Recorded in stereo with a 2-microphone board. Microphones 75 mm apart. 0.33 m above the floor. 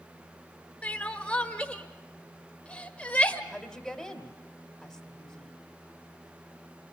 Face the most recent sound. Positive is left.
turn(degrees=-5)  # may be behind; listen again after turning